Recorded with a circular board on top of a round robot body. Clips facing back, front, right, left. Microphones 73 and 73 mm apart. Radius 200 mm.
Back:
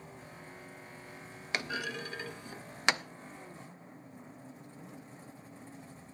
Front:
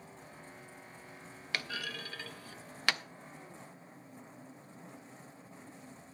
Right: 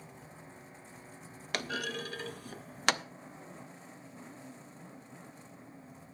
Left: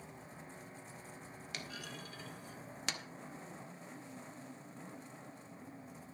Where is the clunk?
110° right, 0.6 m.